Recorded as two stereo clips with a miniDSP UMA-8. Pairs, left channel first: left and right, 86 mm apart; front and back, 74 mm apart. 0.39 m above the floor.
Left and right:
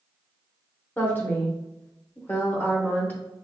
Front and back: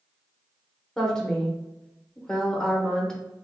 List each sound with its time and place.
1.0 s a woman speaking: 65° left, 0.8 m